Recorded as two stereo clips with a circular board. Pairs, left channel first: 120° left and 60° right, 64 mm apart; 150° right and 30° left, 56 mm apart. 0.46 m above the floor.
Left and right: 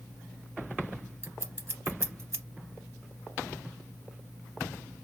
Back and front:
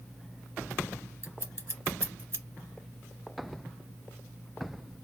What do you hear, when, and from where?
1.2 s scissors: 15° right, 0.6 m